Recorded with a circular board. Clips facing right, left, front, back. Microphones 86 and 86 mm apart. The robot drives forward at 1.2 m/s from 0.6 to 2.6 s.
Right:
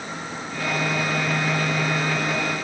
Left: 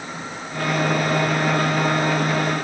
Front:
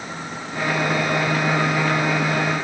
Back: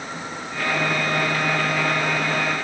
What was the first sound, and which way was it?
Only background noise.